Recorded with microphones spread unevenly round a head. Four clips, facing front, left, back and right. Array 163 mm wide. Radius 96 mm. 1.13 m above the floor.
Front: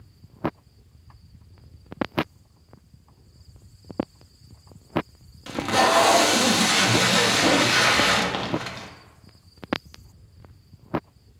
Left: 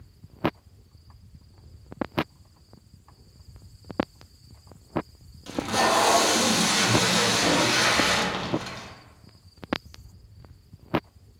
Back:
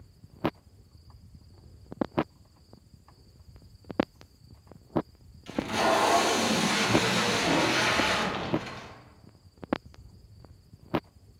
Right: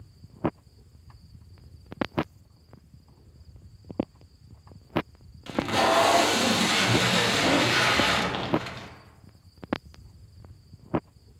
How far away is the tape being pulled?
About 0.6 m.